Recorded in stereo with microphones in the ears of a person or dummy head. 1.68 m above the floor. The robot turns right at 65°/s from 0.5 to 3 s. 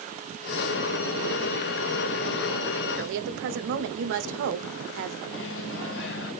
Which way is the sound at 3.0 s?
65° right (ahead or behind).